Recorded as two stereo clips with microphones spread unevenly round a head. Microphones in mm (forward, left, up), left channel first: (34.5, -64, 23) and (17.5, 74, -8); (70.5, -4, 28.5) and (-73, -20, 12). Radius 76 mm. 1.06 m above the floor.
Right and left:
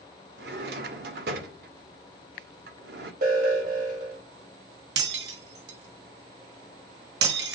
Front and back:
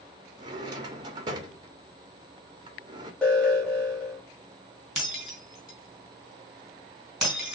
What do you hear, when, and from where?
0.4 s a drawer: 120° left, 1.5 m
3.2 s an alarm: 90° left, 4 m
5.0 s breaking glass: 100° left, 3.5 m